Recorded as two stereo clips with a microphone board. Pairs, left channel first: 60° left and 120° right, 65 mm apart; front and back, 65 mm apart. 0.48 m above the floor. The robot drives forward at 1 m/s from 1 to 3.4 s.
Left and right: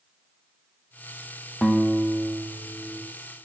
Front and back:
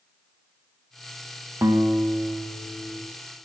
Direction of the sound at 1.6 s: 135° left.